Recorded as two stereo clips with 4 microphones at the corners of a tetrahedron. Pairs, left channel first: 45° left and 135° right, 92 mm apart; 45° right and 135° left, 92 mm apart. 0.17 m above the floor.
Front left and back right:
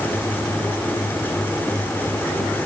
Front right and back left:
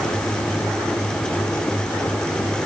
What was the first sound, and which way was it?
Only background noise.